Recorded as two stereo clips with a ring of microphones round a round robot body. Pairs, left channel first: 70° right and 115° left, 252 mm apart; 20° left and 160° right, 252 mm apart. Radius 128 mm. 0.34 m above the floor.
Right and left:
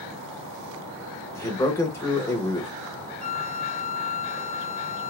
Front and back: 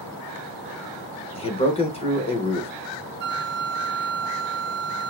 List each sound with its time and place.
1.4 s a man speaking: straight ahead, 0.8 m
3.2 s a flute: 150° right, 0.7 m